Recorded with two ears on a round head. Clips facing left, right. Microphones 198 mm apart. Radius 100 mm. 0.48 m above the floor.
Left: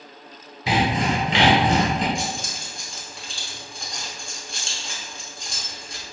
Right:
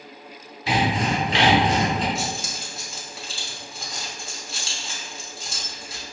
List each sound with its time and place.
0.7 s sawing: 65° left (ahead or behind), 1.9 m
2.1 s keys jangling: 5° right (ahead or behind), 0.8 m